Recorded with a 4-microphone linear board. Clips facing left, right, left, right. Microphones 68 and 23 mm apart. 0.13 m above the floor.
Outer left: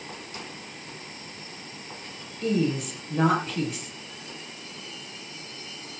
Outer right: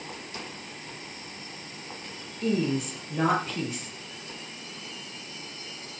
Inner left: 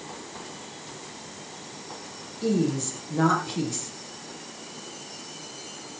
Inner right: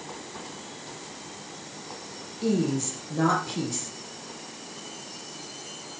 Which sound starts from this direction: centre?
A woman speaking, at 2.4 s.